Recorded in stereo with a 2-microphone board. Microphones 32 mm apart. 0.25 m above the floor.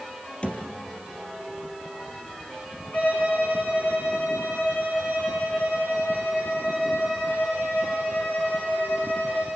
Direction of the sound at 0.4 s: 30° left (ahead or behind).